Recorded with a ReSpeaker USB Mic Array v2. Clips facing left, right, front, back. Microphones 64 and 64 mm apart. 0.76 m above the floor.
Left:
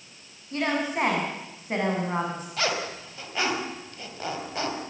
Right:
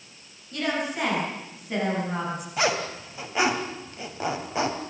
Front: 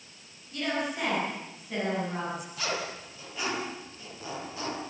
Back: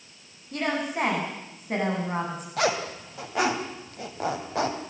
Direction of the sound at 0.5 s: 145° left.